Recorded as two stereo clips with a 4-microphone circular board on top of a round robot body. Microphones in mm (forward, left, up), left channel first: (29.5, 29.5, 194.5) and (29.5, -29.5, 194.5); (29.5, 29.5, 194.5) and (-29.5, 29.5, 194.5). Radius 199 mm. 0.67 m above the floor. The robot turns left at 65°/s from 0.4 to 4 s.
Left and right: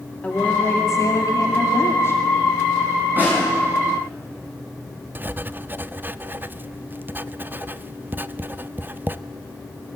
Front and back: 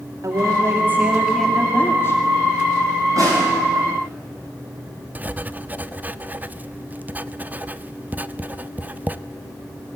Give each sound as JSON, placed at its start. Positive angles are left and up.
{"t": 0.2, "sound": "a woman speaking", "azimuth_deg": 155, "distance_m": 2.5}
{"t": 3.2, "sound": "a snare drum", "azimuth_deg": -150, "distance_m": 8.0}
{"t": 5.2, "sound": "writing", "azimuth_deg": -130, "distance_m": 0.7}